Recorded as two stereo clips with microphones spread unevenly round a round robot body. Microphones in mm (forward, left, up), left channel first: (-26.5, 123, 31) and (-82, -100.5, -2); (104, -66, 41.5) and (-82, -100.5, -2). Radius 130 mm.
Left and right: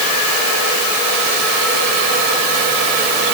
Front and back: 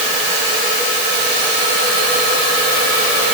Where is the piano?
I don't hear a piano.